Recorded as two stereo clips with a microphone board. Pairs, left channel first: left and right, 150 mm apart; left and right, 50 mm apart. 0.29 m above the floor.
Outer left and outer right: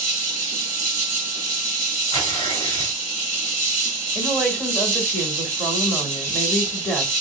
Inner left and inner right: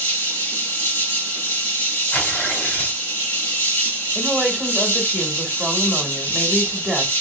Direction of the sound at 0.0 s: 50° left (ahead or behind).